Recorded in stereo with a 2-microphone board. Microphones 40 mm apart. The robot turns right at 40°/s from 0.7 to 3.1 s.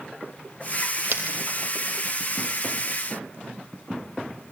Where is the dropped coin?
55° right (ahead or behind), 3 m; by 1.4 s 45° right (ahead or behind), 3 m.